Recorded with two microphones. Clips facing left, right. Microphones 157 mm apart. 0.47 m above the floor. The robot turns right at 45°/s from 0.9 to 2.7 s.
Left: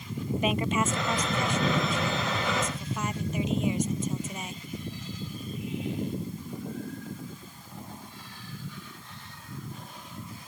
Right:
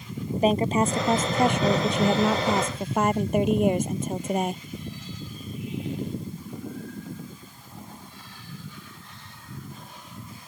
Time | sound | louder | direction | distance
0.4 | a woman speaking | right 6 dB | 140° right | ?